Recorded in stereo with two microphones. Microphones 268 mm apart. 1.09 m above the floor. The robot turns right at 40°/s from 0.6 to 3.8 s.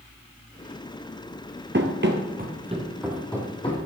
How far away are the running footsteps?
About 1.4 m.